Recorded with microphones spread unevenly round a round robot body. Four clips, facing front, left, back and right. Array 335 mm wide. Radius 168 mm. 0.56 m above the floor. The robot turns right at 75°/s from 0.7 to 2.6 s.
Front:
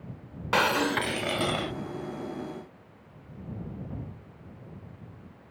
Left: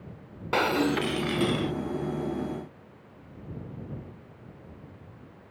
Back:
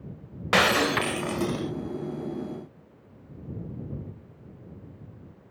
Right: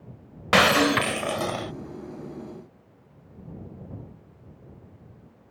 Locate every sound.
0.5 s breaking glass: 120° right; by 1.7 s 45° right